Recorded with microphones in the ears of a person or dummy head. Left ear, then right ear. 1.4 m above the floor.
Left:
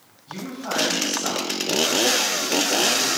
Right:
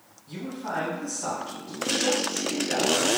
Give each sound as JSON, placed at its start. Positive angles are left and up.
{"t": 0.3, "sound": "a man speaking", "side_deg": -20, "distance_m": 1.7}